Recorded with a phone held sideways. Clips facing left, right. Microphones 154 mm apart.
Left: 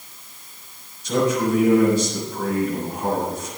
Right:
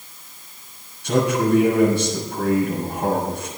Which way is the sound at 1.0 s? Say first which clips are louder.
Right 1 dB; 70° right (ahead or behind).